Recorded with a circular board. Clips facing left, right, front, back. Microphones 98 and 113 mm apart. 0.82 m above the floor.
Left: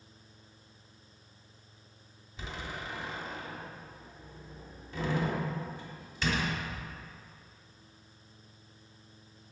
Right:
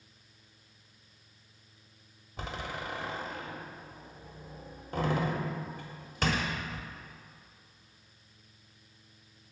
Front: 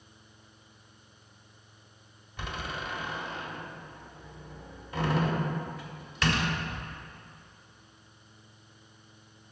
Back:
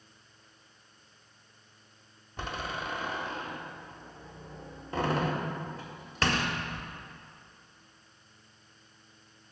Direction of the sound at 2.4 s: 125° right.